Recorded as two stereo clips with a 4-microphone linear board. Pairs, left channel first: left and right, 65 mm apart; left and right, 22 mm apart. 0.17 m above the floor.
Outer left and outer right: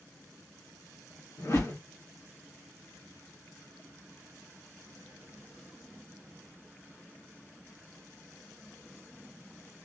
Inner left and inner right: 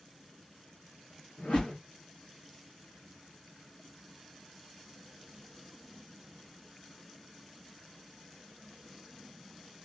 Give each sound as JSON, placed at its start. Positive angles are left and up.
{"t": 1.4, "sound": "a whoosh", "side_deg": 50, "distance_m": 1.7}